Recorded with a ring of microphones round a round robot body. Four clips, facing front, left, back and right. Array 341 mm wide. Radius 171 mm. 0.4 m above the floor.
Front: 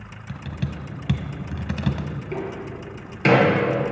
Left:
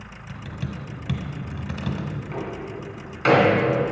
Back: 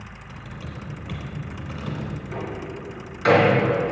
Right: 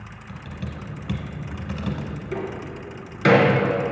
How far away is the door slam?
About 2.5 m.